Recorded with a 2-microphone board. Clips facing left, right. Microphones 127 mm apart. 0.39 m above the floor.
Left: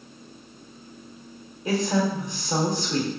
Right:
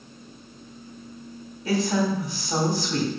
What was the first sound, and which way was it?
A woman speaking, 20° left (ahead or behind).